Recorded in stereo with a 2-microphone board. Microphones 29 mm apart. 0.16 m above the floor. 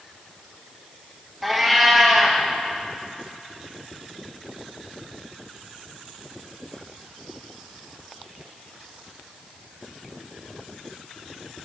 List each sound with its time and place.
1.4 s a cat meowing: 5° right (ahead or behind), 1.5 m